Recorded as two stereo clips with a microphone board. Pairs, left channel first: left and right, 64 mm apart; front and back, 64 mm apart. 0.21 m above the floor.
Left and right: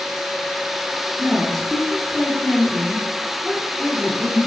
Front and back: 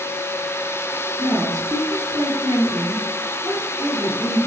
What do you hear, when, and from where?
1.2 s a woman speaking: 175° left, 3.5 m